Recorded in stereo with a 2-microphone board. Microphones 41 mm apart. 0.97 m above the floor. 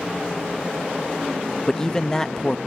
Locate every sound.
1.7 s a man speaking: 10° left (ahead or behind)